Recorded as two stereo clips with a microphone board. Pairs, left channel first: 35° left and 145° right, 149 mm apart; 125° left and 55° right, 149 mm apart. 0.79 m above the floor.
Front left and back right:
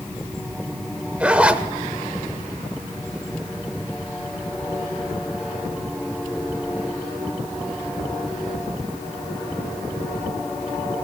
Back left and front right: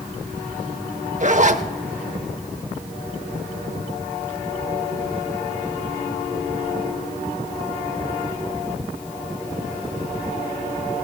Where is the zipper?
65° right, 0.7 m.